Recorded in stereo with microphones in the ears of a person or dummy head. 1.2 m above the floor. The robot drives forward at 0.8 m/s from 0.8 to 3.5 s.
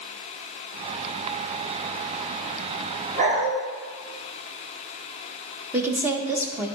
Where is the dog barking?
40° right (ahead or behind), 3 m.